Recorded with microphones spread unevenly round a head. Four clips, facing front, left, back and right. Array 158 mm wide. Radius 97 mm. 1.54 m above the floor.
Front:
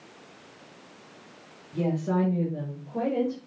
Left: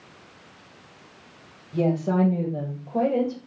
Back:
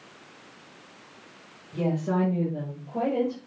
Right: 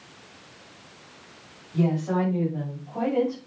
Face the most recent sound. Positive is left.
turn(degrees=80)